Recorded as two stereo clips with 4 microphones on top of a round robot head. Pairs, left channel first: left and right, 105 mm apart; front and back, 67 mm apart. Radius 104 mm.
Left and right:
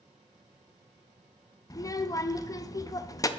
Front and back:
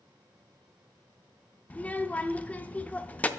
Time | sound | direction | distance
1.7 | a child speaking | 60° left | 0.5 m